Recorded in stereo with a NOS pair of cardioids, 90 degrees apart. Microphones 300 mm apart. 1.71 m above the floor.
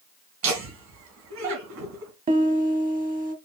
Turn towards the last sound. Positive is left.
turn(degrees=-30)